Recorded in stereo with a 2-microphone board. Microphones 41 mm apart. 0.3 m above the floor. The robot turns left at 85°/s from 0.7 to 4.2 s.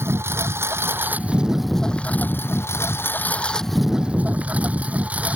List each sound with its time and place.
0.0 s a lawn mower: 100° right; by 5.4 s 35° right